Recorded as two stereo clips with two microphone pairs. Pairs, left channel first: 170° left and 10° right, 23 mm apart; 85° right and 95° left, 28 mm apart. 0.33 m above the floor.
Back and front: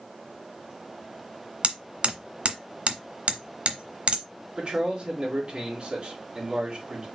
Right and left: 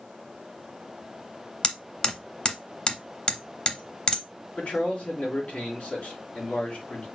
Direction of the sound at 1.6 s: 40° right.